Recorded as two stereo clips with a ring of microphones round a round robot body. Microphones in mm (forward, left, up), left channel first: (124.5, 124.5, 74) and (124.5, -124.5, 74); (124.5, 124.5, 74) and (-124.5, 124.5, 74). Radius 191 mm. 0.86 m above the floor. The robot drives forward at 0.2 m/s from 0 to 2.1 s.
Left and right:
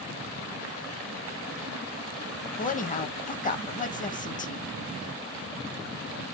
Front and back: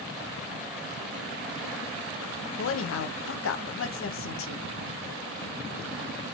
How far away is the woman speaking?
About 0.6 m.